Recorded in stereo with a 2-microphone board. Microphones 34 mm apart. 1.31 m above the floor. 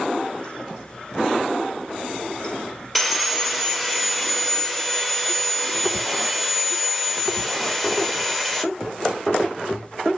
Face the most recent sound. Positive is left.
turn(degrees=5)  # may be behind; listen again after turning